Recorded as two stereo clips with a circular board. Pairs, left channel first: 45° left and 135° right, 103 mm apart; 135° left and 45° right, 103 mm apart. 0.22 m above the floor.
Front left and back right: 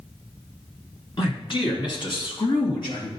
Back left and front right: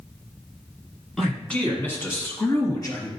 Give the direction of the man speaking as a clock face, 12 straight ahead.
10 o'clock.